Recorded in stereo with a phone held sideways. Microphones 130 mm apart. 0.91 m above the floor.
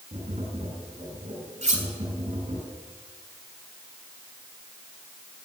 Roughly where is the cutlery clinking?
Right.